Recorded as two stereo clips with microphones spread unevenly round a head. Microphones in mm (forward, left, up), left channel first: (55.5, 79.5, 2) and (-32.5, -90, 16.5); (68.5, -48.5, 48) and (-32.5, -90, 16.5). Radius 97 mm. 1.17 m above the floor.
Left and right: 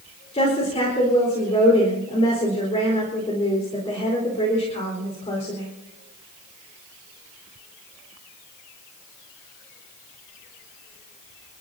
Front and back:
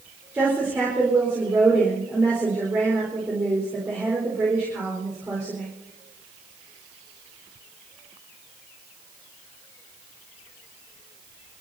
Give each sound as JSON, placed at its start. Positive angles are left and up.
{"t": 0.3, "sound": "a woman speaking", "azimuth_deg": 125, "distance_m": 4.5}